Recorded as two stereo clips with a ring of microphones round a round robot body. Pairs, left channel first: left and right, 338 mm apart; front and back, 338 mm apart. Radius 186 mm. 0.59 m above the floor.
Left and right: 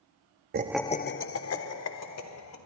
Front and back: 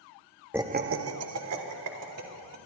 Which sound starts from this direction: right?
Laughter, at 0.5 s.